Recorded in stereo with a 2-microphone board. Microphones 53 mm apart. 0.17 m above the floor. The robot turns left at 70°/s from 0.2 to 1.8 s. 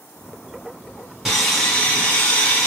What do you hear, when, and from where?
1.2 s sawing: 170° right, 1.5 m; by 2.7 s 155° left, 1.5 m